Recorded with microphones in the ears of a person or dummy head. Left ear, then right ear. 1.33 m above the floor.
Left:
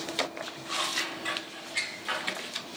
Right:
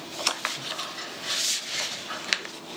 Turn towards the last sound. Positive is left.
turn(degrees=40)  # may be behind; listen again after turning